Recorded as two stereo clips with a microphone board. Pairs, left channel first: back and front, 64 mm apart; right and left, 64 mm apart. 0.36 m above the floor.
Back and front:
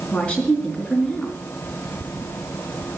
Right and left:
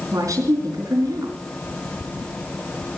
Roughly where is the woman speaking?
Left.